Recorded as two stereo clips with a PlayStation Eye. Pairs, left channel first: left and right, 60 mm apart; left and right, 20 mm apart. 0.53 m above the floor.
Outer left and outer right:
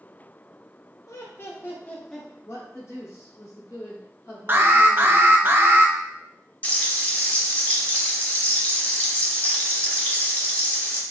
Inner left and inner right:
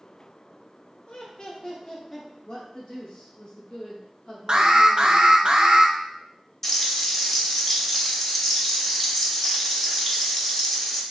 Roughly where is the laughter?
Left.